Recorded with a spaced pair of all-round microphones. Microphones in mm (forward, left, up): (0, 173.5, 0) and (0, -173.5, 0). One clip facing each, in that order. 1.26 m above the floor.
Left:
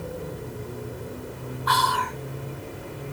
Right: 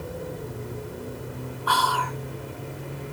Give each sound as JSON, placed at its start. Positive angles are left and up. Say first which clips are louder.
{"t": 1.7, "sound": "whispering", "louder": "even", "side_deg": 30, "distance_m": 0.6}